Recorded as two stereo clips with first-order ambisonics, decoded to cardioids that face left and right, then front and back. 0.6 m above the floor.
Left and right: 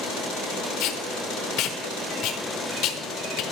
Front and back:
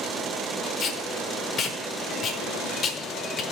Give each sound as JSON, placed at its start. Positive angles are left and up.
{"t": 0.8, "sound": "tape being pulled", "azimuth_deg": 55, "distance_m": 1.0}